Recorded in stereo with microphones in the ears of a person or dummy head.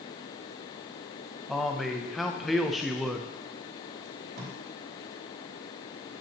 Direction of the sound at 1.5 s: Centre (ahead or behind).